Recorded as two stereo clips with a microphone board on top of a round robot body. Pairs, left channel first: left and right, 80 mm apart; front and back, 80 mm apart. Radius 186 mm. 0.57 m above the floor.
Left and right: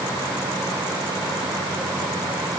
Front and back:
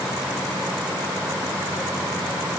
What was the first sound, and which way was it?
Only background noise.